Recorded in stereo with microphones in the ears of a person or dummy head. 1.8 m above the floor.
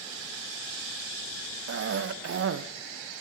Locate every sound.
1.7 s a cough: 70° right (ahead or behind), 0.5 m